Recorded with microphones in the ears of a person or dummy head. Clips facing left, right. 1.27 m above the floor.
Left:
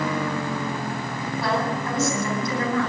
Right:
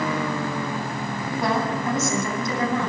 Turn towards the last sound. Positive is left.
turn(degrees=-25)  # may be behind; listen again after turning